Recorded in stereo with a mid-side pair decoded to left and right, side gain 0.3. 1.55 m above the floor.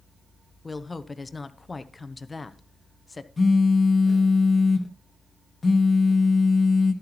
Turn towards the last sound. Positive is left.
turn(degrees=40)